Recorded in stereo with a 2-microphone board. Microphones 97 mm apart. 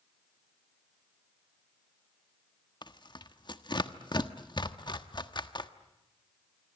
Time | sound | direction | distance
2.8 | tearing paper | 50° left (ahead or behind) | 1.2 m